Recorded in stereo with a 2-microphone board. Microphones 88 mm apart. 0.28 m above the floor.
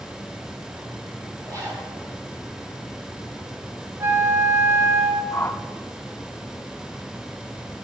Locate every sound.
1.4 s a zipper: 40° right (ahead or behind), 7 m
4.0 s a flute: 25° right (ahead or behind), 1.4 m
5.3 s a whoosh: 25° left (ahead or behind), 0.8 m